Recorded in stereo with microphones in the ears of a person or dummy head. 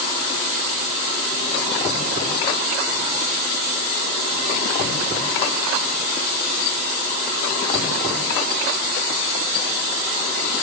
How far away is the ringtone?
No ringtone in this recording.